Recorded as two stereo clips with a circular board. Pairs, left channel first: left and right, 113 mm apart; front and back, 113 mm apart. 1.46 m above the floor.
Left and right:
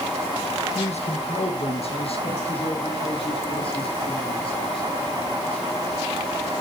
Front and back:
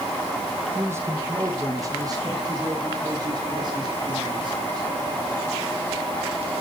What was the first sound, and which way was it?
A man speaking, 110° left.